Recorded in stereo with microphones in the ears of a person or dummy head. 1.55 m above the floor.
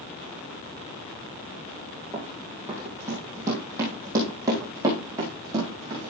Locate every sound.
2.1 s running footsteps: 10° right (ahead or behind), 2.5 m; by 6.1 s 20° right (ahead or behind), 5 m